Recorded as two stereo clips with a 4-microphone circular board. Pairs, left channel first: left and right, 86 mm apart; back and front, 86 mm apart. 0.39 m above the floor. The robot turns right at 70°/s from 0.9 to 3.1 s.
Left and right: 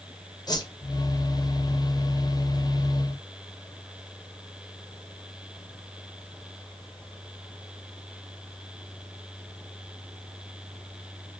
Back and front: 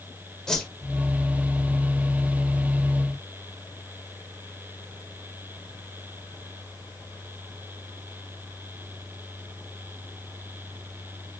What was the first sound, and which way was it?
A whoosh, 100° left.